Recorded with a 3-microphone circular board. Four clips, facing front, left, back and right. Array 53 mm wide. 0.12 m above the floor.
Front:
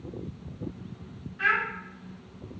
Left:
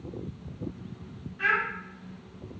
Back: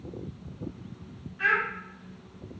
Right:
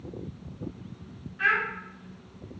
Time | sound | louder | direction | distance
1.4 | a child speaking | right 1 dB, even | 45° right | 0.8 m